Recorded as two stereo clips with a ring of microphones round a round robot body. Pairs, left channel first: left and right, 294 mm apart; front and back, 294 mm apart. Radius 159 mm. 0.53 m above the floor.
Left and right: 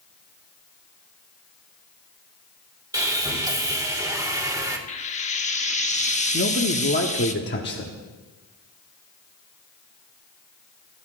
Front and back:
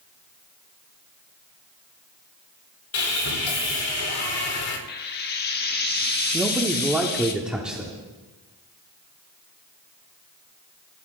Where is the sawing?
15° right, 2 m.